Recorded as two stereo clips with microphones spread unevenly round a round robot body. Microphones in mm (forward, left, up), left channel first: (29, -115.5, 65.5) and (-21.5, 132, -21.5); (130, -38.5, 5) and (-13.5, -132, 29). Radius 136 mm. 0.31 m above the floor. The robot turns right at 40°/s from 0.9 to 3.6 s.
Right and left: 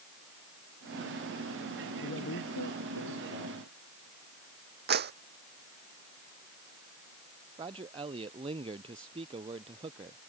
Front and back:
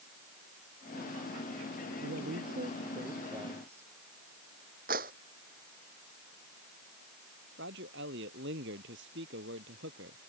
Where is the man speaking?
170° left.